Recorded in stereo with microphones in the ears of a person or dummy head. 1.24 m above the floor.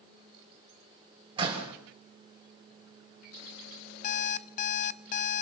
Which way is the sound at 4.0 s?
45° left (ahead or behind).